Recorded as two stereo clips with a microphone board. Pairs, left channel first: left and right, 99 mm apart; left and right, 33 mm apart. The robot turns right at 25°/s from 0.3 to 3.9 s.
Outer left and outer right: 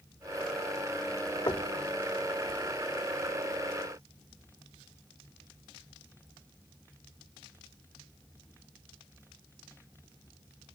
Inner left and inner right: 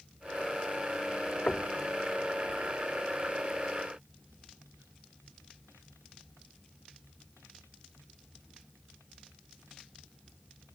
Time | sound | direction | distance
1.5 | knocking | 50° left (ahead or behind) | 0.6 m